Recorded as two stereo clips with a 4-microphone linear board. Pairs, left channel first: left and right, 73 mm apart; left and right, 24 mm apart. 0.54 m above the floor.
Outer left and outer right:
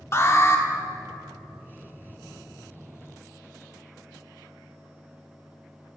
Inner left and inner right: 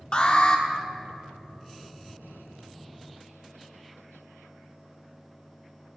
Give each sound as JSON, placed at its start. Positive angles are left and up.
{"t": 0.1, "sound": "an alarm", "side_deg": 40, "distance_m": 1.1}